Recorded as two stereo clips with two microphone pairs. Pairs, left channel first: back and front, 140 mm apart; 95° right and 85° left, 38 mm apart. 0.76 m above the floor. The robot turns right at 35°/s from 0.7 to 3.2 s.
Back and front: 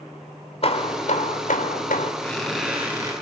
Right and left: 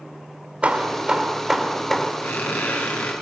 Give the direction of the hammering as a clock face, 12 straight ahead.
7 o'clock.